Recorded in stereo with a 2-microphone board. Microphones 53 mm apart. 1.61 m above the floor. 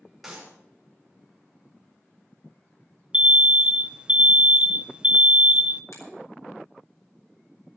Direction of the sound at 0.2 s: 5° right (ahead or behind).